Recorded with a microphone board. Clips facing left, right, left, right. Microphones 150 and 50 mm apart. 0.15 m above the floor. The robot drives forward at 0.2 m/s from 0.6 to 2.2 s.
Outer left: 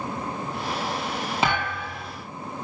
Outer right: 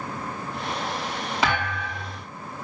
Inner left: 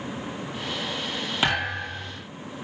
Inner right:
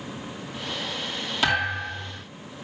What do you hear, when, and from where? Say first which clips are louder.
1.4 s a thud: outer right 1 dB, inner right 2 dB; 25° left (ahead or behind), 6 m